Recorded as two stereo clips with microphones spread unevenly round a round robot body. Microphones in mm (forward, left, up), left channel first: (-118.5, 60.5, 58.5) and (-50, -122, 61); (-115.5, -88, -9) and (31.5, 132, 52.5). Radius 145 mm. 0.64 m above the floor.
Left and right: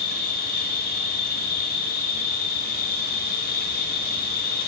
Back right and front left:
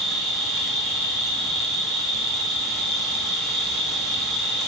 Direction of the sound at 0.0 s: 150° left.